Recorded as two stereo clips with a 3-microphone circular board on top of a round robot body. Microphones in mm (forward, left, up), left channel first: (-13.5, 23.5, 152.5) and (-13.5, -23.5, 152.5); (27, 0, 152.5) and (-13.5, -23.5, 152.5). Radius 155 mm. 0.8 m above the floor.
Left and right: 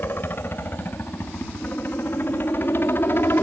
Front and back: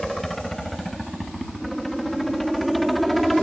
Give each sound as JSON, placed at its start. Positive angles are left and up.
{"t": 0.0, "sound": "a helicopter", "azimuth_deg": 115}